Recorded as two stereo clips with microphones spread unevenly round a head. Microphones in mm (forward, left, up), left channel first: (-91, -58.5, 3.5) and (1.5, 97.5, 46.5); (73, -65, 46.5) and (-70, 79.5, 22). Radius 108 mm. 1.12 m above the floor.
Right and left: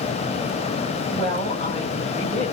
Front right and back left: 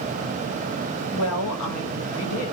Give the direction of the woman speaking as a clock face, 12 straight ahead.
2 o'clock.